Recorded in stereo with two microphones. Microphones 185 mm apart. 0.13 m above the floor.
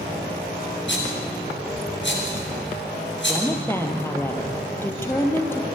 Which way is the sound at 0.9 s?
75° left (ahead or behind).